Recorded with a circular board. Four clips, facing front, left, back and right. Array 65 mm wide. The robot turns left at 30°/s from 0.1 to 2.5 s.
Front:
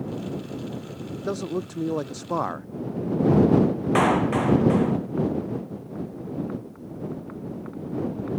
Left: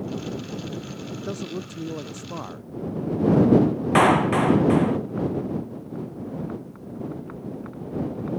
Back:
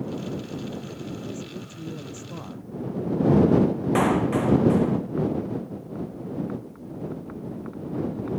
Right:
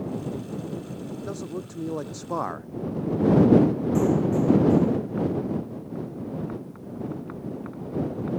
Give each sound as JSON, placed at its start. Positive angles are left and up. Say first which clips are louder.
{"t": 1.1, "sound": "a man speaking", "louder": "left 2 dB, front 7 dB", "azimuth_deg": 10}
{"t": 4.0, "sound": "a clap", "louder": "left 6 dB, front 2 dB", "azimuth_deg": 75}